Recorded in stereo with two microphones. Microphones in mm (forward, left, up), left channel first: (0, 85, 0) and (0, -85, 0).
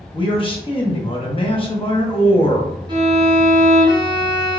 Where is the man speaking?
30° left (ahead or behind), 0.9 m.